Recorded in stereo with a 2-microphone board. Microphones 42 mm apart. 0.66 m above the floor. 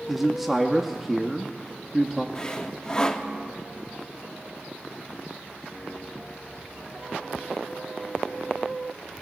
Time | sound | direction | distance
0.1 | a man speaking | 5° right (ahead or behind) | 0.7 m
2.4 | sawing | 20° left (ahead or behind) | 0.6 m